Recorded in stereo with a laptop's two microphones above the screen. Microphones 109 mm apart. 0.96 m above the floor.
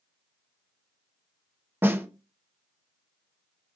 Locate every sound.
1.8 s a snare drum: 20° right (ahead or behind), 0.5 m